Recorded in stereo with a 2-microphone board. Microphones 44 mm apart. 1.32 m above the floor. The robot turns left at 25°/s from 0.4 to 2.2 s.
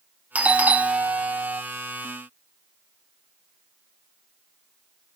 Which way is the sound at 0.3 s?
65° right.